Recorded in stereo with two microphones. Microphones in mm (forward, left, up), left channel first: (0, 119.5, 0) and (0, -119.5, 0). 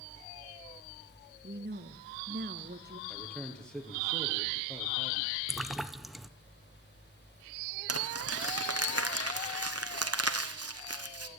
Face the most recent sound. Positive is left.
turn(degrees=-80)